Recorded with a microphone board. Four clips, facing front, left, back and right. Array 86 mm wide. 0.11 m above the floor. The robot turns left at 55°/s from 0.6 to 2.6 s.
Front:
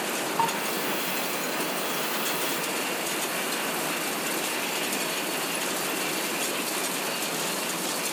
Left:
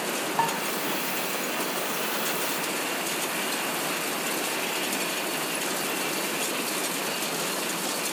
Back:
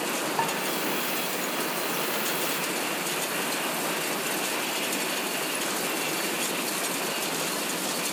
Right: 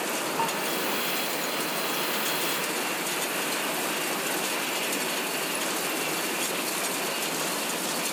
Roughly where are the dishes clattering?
Behind left.